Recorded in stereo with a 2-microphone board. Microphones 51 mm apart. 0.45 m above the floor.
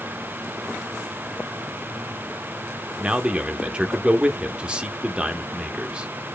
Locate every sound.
3.0 s a man speaking: 20° right (ahead or behind), 0.8 m